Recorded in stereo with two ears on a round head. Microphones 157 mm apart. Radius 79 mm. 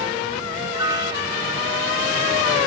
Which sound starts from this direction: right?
A piano, at 0.7 s.